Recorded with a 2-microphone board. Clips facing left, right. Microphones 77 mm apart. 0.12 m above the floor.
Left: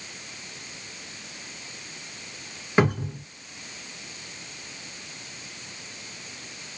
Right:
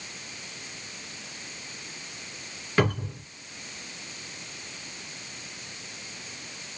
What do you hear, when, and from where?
2.8 s a cupboard door: 20° left (ahead or behind), 1.7 m